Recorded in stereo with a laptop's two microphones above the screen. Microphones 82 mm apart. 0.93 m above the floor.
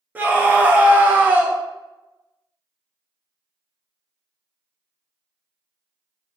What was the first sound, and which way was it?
A scream, 20° right (ahead or behind).